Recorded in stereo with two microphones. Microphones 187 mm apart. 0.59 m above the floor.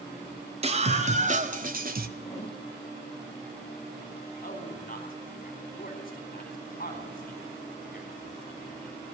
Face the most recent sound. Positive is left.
turn(degrees=50)  # may be behind; listen again after turning